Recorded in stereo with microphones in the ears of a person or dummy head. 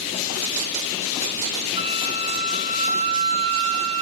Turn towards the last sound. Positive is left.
turn(degrees=-25)  # may be behind; listen again after turning